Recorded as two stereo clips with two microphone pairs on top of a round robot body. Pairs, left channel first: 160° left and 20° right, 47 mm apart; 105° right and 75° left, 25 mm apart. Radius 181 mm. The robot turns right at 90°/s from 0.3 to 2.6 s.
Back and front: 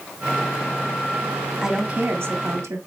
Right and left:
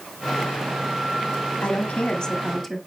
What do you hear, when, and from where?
1.6 s a woman speaking: 110° right, 2 m; by 2.8 s 20° right, 2 m